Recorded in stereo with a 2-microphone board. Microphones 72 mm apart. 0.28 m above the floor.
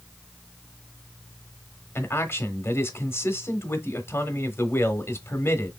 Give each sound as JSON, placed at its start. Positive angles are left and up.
{"t": 1.9, "sound": "a man speaking", "side_deg": 35, "distance_m": 1.0}